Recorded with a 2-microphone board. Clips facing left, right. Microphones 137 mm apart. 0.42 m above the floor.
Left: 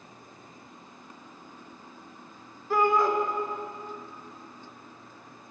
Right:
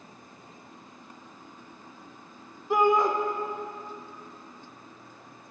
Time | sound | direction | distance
2.7 | a shout | 15° right (ahead or behind) | 0.7 m